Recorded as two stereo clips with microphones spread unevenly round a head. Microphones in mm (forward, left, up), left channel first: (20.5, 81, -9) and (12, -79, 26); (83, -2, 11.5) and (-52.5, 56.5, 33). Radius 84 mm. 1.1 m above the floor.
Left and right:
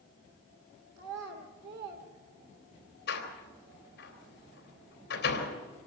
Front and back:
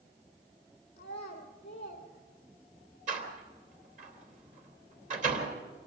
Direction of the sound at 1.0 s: 80° right.